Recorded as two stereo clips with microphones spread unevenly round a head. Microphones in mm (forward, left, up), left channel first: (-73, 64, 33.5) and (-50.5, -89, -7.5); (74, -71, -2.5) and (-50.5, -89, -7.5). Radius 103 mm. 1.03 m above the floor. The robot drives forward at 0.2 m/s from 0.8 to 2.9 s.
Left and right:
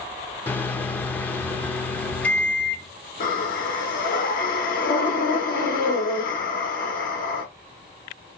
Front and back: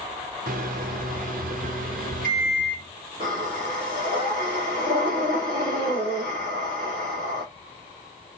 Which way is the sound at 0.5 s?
Straight behind.